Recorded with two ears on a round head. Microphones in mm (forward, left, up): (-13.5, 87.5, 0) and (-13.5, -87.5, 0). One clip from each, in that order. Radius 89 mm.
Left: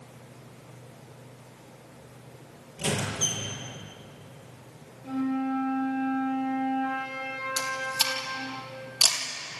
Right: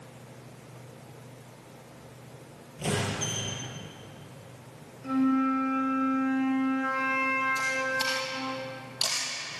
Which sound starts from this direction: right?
A flute, at 5.0 s.